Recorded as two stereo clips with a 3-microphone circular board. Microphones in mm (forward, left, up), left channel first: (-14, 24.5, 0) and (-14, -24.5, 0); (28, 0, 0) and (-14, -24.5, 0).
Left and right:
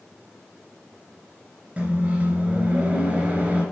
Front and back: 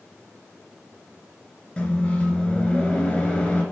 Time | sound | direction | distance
1.8 | a microwave | 35° right | 2 m